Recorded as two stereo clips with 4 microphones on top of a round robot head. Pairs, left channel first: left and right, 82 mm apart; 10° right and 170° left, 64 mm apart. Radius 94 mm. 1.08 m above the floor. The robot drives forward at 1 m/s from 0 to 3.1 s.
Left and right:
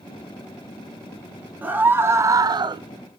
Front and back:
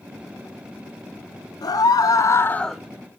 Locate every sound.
1.6 s a scream: 20° right, 1.2 m; by 2.8 s 110° right, 0.5 m